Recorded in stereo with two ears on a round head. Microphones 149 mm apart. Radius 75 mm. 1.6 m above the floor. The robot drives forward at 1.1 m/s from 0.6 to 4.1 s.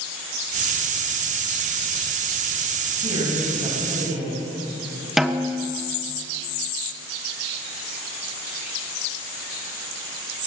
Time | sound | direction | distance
3.0 | a man speaking | 30° right (ahead or behind) | 9.5 m
5.2 | a snare drum | centre (ahead or behind) | 1.3 m